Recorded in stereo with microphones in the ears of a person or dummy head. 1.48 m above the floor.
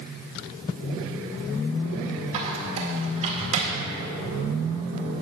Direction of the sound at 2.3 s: 40° right (ahead or behind).